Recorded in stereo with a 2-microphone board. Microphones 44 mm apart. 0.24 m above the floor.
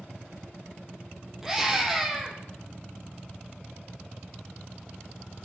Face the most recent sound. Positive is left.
turn(degrees=-10)  # may be behind; listen again after turning